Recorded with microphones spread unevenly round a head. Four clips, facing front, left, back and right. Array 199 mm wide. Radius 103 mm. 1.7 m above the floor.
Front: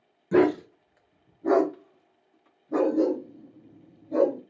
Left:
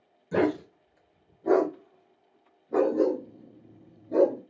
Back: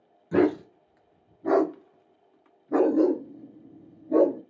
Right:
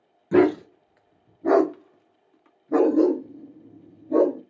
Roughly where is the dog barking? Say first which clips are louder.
Right 7 dB, front 1 dB; ahead right.